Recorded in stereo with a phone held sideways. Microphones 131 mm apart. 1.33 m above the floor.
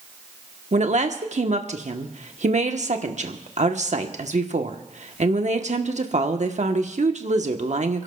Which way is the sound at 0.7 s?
60° right (ahead or behind).